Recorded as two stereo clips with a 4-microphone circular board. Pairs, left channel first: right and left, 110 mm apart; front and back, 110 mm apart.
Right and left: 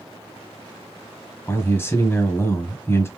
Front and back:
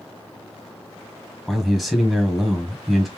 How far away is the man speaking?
About 1.2 m.